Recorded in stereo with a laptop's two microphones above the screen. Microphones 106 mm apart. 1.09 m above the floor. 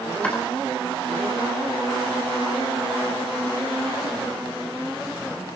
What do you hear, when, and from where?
0.2 s chopping: 15° left (ahead or behind), 4 m